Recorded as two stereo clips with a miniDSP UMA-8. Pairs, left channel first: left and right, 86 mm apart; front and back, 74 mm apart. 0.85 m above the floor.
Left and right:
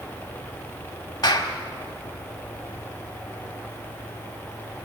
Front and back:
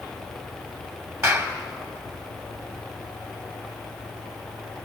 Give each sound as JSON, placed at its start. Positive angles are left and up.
{"t": 1.2, "sound": "a clap", "azimuth_deg": 135, "distance_m": 2.0}